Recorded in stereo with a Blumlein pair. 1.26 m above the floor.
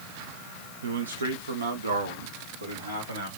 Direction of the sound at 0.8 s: 65° right.